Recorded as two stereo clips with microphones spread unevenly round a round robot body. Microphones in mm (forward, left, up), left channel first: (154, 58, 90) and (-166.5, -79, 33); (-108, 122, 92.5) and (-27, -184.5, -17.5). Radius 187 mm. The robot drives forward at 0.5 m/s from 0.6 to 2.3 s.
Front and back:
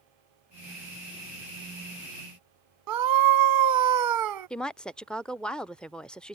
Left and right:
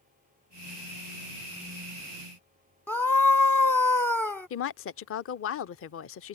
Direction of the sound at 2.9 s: 165° right.